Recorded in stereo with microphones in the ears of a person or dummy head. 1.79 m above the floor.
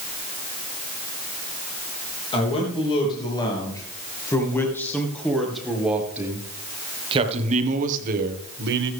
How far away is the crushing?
I don't hear crushing.